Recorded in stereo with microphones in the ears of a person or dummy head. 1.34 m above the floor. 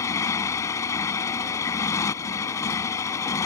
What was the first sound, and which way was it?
A motorcycle, 10° left (ahead or behind).